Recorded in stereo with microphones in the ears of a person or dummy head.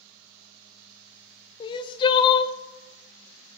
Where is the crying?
25° left (ahead or behind), 0.5 m.